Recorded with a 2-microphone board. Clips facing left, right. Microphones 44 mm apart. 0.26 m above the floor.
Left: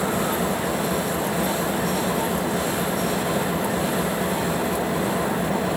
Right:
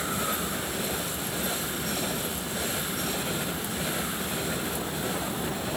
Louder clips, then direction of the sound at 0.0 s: Left 7 dB; 90° left.